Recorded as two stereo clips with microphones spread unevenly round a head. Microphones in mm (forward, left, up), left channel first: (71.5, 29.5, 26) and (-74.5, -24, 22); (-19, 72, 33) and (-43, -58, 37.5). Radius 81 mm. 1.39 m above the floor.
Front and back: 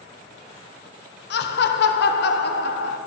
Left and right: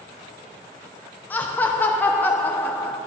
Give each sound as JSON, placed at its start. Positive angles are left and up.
{"t": 1.3, "sound": "laughter", "azimuth_deg": 0, "distance_m": 0.8}